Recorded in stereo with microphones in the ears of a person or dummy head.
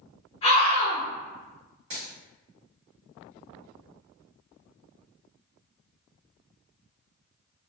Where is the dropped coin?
25° right (ahead or behind), 1.4 m.